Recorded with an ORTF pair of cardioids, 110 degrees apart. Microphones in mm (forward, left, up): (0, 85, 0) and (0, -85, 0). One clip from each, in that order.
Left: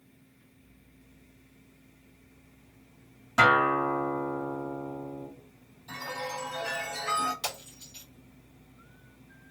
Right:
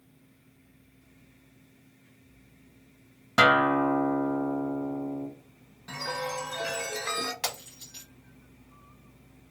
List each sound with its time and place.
3.4 s a guitar: 45° right, 1.1 m
5.9 s a chime: 60° right, 1.5 m
7.4 s breaking glass: 60° right, 1.7 m